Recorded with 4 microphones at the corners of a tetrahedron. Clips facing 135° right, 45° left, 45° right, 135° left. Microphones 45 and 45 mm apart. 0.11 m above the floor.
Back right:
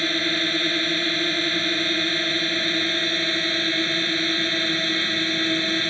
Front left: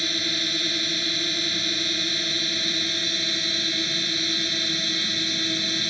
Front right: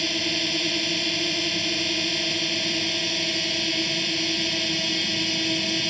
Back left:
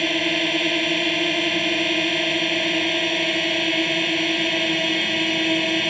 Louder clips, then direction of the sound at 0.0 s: Back right 4 dB, back left 6 dB; straight behind.